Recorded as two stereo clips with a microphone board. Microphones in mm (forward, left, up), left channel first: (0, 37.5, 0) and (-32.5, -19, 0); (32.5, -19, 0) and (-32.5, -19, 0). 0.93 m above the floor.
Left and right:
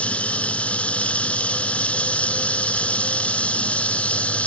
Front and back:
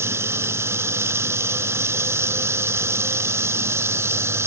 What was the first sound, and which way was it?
Running water, 130° left.